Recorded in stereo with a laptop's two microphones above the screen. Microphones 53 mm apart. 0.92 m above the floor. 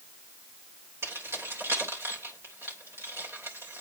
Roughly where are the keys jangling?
Right.